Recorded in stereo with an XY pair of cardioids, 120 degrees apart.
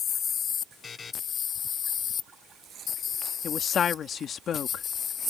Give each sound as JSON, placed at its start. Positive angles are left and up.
{"t": 0.8, "sound": "a buzzer", "azimuth_deg": 35}
{"t": 3.4, "sound": "a woman speaking", "azimuth_deg": 50}